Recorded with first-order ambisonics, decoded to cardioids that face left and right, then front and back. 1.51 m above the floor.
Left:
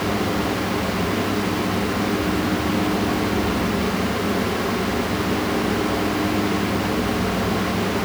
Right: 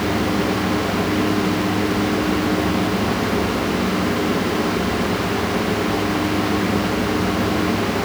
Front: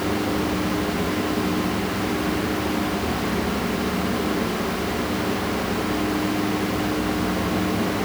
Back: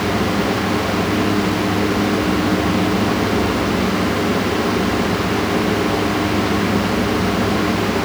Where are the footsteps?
No footsteps in this recording.